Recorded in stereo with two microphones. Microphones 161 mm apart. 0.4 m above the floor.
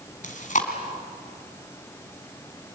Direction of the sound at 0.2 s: 50° left (ahead or behind).